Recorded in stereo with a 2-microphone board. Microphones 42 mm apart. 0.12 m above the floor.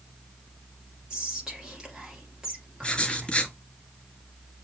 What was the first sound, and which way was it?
Whispering, 15° right (ahead or behind).